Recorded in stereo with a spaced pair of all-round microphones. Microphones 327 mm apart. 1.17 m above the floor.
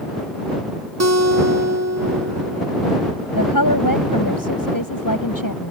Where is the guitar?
50° right (ahead or behind).